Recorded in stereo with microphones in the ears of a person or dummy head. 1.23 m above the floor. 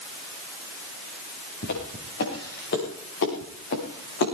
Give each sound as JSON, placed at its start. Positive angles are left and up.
{"t": 1.6, "sound": "footsteps", "side_deg": 60, "distance_m": 8.5}